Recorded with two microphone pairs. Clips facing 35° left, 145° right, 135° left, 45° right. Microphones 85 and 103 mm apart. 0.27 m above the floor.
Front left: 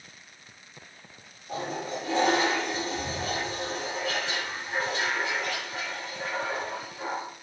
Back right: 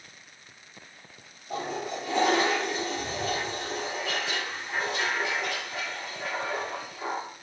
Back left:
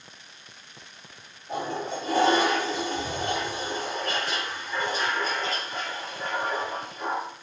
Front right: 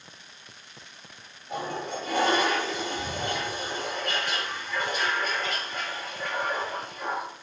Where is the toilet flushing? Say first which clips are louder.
Even, back left 2 dB; 80° left, 7 m.